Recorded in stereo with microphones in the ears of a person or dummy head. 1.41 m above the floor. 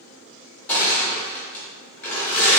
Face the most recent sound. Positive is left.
turn(degrees=10)  # may be behind; listen again after turning